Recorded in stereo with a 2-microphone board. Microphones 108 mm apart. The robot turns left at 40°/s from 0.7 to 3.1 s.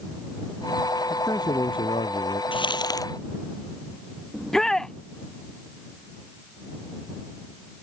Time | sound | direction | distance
1.1 | a man speaking | 155° left | ?
2.5 | crumpling | 50° left (ahead or behind) | ?
4.3 | a shout | 5° left (ahead or behind) | ?